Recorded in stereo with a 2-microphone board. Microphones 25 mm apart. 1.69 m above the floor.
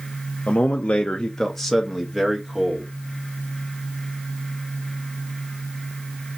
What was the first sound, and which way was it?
A man speaking, 55° left (ahead or behind).